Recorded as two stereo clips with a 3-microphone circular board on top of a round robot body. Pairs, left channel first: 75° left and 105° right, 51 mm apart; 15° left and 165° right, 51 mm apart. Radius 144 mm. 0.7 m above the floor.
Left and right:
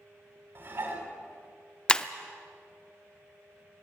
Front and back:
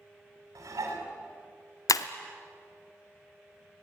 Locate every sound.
0.6 s dishes clattering: 150° right, 4.5 m
1.9 s breaking glass: straight ahead, 0.6 m